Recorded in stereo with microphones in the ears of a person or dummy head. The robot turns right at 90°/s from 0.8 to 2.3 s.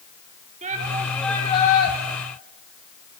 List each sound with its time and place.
0.6 s a shout: 35° right, 6 m; by 1.9 s 65° left, 6 m